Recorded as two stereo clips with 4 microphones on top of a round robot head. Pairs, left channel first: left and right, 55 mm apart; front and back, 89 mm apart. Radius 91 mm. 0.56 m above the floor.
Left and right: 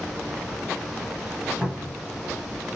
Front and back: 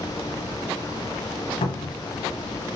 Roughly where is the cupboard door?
Ahead.